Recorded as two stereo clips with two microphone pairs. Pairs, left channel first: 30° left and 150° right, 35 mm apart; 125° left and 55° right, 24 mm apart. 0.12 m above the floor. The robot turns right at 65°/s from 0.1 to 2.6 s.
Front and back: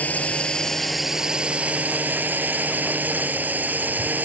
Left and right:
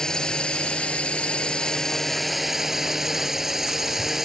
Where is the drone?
65° left; by 4.2 s 130° right.